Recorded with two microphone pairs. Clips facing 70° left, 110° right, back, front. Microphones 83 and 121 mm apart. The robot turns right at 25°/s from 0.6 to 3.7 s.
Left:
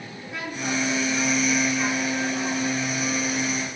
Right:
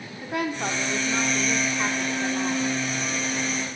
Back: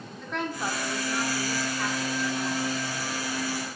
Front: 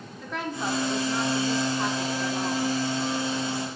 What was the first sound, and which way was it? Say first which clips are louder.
A woman speaking: right 4 dB, front 1 dB; 85° right.